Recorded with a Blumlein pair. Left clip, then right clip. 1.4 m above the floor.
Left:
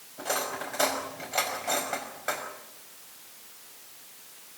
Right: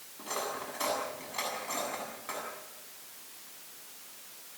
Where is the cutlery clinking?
45° left, 5 m.